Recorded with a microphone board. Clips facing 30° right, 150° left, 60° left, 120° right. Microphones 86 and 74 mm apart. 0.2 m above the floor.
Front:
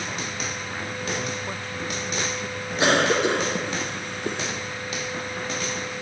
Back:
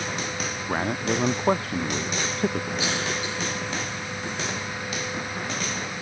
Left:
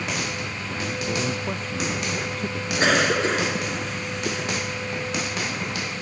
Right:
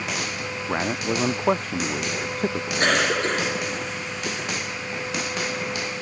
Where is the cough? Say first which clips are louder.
Front 8 dB, left 2 dB; 30° right.